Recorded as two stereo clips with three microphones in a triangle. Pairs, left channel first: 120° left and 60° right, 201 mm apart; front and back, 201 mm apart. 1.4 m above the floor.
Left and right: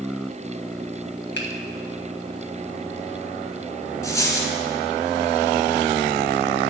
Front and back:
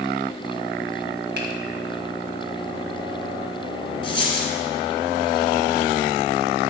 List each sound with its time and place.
1.4 s a finger snap: 150° left, 1.5 m
4.0 s a dropped coin: 50° left, 1.8 m